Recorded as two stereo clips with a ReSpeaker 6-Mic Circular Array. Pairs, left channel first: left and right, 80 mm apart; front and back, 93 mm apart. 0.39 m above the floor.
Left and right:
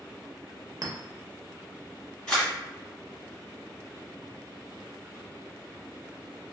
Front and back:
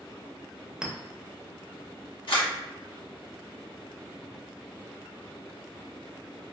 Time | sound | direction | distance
0.8 | a clink | 100° right | 0.6 m
2.3 | a camera shutter | 10° left | 1.9 m